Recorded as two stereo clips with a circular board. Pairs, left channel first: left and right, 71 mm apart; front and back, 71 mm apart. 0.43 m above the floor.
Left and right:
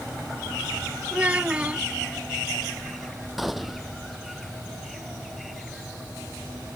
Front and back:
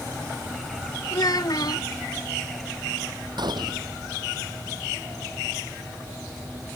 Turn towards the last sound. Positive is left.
turn(degrees=-175)